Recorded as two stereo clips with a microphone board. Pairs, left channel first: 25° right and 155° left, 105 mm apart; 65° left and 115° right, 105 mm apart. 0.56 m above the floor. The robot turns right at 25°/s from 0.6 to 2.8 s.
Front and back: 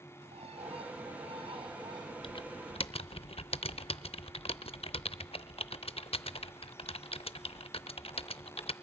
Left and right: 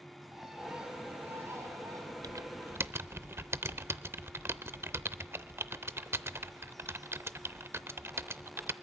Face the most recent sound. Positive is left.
turn(degrees=-45)